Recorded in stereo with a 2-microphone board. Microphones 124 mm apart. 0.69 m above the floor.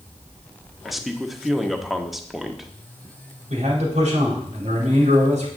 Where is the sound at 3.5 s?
65° right (ahead or behind), 4 m.